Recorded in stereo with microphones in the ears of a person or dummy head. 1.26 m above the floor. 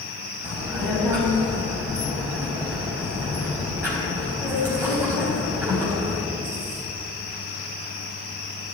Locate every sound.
0.4 s a child speaking: 15° right (ahead or behind), 5.5 m